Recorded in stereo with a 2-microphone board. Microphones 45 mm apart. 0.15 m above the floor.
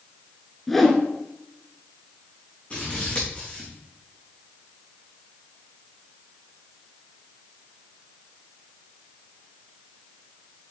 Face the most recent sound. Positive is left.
turn(degrees=25)  # may be behind; listen again after turning